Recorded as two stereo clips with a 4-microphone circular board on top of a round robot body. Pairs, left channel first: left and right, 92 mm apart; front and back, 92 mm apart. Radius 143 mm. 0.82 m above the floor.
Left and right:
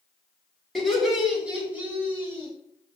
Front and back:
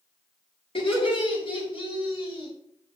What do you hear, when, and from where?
0.8 s laughter: straight ahead, 3.5 m; by 2.5 s 30° right, 4 m